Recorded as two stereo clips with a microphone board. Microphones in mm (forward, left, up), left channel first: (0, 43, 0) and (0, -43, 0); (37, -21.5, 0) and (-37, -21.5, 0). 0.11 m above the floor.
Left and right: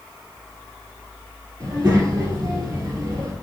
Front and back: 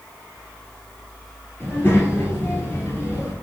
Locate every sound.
1.6 s a child speaking: 50° right, 1.6 m